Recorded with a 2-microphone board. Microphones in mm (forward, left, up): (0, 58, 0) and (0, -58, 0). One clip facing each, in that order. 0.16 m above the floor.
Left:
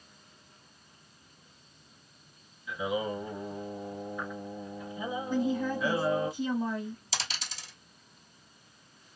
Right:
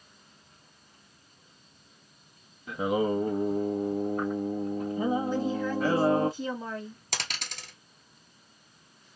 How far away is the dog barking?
I don't hear a dog barking.